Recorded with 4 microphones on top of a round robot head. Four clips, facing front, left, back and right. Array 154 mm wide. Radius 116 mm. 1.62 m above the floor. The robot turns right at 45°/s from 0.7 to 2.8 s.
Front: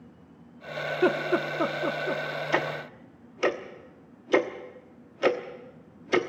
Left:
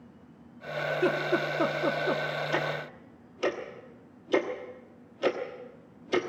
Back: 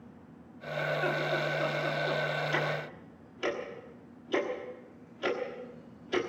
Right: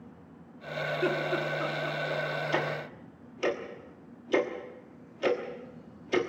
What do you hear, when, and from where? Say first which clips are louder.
0.9 s laughter: left 3 dB, front 7 dB; 10° left, 1.2 m; by 2.2 s 70° left, 1.2 m
2.5 s ticking: even, front 4 dB; straight ahead, 1.2 m; by 6.2 s 10° left, 1.2 m